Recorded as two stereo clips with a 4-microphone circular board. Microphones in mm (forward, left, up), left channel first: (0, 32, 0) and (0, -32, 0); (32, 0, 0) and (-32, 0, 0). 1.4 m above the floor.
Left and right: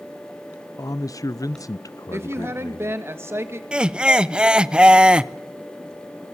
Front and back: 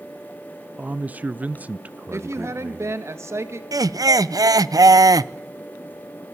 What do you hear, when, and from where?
0.8 s a man speaking: 115° left, 0.7 m
2.1 s a woman speaking: 140° right, 2 m
3.7 s laughter: 165° right, 0.7 m